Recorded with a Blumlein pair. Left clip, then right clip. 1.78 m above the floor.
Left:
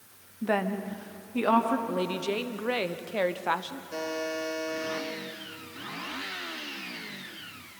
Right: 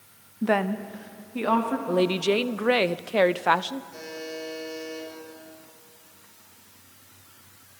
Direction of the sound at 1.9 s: 20° right.